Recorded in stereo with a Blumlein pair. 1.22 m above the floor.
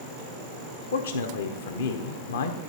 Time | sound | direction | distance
0.9 | a man speaking | 60° left | 0.8 m